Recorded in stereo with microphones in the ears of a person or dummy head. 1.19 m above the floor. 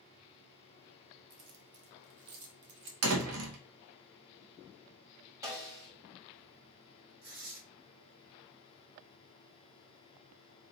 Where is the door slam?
75° right (ahead or behind), 1.1 m.